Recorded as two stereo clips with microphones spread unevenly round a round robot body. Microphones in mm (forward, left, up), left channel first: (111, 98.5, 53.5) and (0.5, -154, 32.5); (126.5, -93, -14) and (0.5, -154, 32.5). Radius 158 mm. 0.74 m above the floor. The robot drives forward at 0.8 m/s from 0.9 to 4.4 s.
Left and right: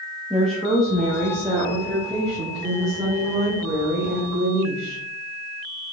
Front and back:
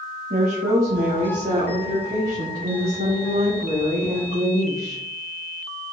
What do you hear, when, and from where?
0.3 s a woman speaking: 160° left, 1.1 m; by 5.0 s 175° left, 3.5 m